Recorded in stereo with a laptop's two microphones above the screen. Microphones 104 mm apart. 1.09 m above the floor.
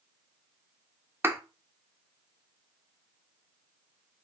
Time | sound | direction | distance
1.2 | a thud | 20° right (ahead or behind) | 0.7 m